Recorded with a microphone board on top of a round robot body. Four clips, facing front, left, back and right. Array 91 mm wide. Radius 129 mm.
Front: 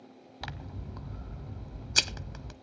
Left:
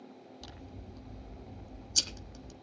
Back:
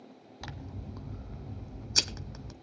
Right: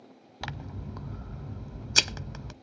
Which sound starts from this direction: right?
Scissors, at 0.4 s.